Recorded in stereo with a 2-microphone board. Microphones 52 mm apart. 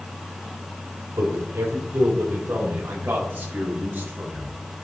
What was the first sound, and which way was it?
A man speaking, 60° right (ahead or behind).